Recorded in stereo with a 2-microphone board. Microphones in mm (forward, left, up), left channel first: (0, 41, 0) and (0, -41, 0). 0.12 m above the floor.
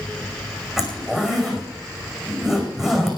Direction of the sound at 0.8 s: 5° right (ahead or behind).